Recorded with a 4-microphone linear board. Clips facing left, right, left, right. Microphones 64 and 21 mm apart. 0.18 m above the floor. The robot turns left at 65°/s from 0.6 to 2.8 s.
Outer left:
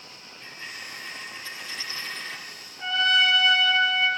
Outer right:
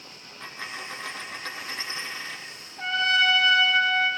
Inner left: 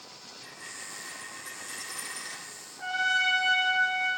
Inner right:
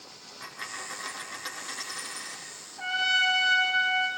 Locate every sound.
0.4 s a dropped coin: 65° right, 1.1 m; by 2.4 s 175° left, 1.1 m
2.8 s a trumpet: 40° right (ahead or behind), 1.8 m